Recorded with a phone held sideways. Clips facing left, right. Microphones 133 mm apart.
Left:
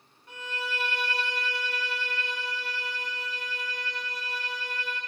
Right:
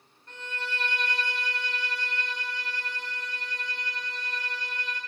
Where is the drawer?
No drawer in this recording.